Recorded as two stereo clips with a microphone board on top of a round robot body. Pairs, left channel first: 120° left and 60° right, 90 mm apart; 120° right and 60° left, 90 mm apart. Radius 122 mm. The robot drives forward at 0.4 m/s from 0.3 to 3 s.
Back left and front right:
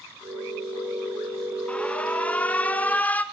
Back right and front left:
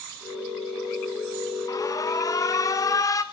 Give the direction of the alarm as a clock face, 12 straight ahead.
5 o'clock.